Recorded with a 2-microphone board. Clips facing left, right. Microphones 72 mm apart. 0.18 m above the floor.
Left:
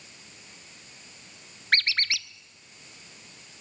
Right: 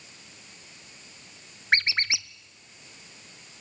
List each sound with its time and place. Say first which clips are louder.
1.7 s a squeak: right 2 dB; 20° right (ahead or behind), 0.6 m